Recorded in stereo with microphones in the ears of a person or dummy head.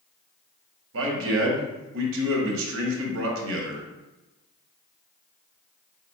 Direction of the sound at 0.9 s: 75° right (ahead or behind).